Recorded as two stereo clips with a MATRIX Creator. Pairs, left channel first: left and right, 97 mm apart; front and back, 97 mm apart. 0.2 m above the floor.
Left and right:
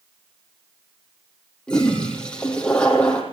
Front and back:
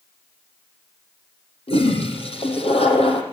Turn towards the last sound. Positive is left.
turn(degrees=10)